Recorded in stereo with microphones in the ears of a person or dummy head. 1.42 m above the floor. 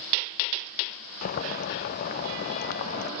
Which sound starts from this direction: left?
Boiling, at 1.2 s.